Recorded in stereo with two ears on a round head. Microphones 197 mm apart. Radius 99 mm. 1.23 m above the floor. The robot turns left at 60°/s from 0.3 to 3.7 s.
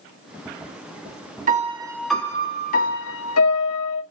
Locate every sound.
1.5 s a piano: 140° right, 1.8 m; by 4.0 s 85° left, 1.8 m